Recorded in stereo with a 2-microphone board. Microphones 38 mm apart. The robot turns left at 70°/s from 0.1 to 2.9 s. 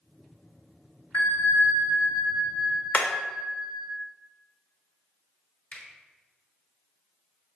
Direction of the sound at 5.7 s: 40° left (ahead or behind).